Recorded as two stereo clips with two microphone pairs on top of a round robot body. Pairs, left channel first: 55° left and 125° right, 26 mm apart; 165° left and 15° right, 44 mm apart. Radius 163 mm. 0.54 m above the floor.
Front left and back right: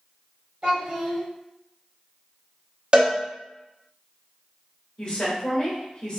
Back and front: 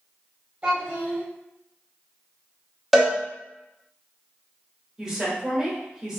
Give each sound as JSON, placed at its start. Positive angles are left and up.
{"t": 0.6, "sound": "a child speaking", "azimuth_deg": -80, "distance_m": 1.3}
{"t": 2.9, "sound": "a cowbell", "azimuth_deg": -100, "distance_m": 1.3}
{"t": 5.0, "sound": "a woman speaking", "azimuth_deg": 50, "distance_m": 1.5}